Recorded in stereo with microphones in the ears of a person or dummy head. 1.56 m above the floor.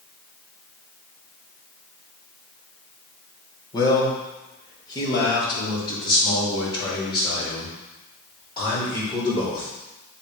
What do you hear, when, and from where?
3.7 s a man speaking: 25° left (ahead or behind), 1.4 m